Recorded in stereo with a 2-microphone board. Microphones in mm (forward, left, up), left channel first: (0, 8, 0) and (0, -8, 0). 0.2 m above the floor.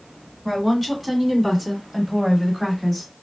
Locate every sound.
0.5 s a woman speaking: 5° right (ahead or behind), 1.8 m; by 3.1 s 5° left (ahead or behind), 1.3 m